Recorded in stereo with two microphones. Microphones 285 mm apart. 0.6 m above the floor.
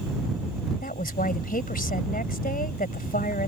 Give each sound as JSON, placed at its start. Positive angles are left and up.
{"t": 0.8, "sound": "a woman speaking", "side_deg": 30}